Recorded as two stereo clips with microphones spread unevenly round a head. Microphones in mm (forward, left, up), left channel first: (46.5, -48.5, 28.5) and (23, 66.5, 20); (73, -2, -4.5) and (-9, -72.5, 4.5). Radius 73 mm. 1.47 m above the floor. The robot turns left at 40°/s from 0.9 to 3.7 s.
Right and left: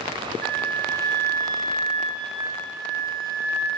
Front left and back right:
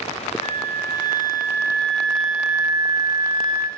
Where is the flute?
5° left, 1.9 m; by 3.7 s 110° right, 1.9 m.